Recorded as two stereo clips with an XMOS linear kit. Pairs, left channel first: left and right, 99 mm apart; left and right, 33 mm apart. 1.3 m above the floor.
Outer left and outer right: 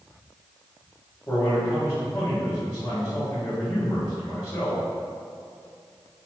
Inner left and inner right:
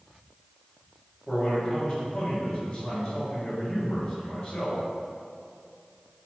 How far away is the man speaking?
About 1.7 m.